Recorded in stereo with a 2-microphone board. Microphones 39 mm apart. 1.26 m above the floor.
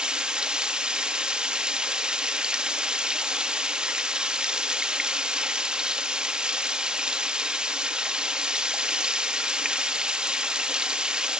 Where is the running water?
25° right (ahead or behind), 1.8 m.